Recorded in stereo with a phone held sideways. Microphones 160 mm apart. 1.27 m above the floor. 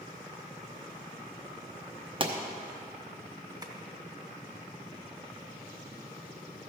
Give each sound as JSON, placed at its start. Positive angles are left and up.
{"t": 2.2, "sound": "a pop", "side_deg": -35, "distance_m": 0.9}
{"t": 3.6, "sound": "tapping", "side_deg": -25, "distance_m": 1.2}